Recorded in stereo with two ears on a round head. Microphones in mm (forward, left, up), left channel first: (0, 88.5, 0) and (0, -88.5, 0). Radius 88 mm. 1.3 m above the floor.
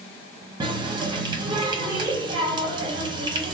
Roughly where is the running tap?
Right.